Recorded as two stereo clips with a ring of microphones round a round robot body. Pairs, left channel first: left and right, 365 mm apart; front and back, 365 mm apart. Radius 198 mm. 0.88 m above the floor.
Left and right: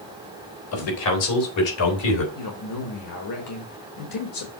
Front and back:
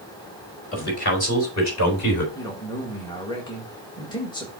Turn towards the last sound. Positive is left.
turn(degrees=75)